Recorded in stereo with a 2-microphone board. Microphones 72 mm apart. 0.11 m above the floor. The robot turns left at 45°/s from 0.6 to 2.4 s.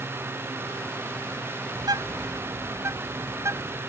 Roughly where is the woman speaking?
No woman speaking in this recording.